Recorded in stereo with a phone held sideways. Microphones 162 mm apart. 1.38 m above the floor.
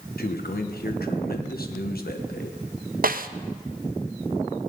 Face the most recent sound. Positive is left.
turn(degrees=-60)  # may be behind; listen again after turning